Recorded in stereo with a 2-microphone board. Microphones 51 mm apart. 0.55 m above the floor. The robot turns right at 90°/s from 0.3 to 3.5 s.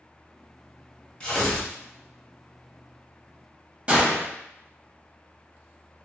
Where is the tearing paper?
20° left (ahead or behind), 1.3 m; by 1.7 s centre (ahead or behind), 1.3 m.